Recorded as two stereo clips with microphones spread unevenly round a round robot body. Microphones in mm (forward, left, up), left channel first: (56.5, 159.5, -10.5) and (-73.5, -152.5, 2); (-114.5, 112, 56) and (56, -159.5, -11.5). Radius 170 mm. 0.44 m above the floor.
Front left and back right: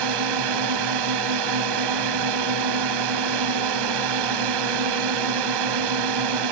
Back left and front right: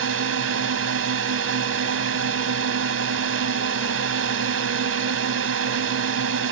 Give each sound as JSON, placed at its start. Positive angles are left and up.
{"t": 0.0, "sound": "a drone", "azimuth_deg": -100}